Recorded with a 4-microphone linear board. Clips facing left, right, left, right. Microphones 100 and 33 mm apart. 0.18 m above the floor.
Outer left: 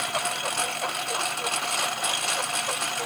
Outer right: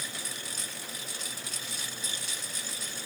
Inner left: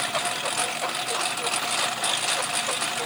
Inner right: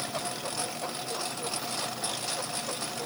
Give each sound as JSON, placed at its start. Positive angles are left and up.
{"t": 0.0, "sound": "a lawn mower", "side_deg": 70}